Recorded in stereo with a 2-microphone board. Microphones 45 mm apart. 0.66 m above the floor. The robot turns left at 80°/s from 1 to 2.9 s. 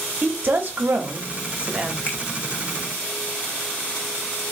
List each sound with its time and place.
0.2 s a woman speaking: 80° right, 0.7 m; by 2.0 s 155° right, 0.7 m
2.1 s a finger snap: 30° left (ahead or behind), 0.7 m; by 2.2 s 25° left (ahead or behind), 0.7 m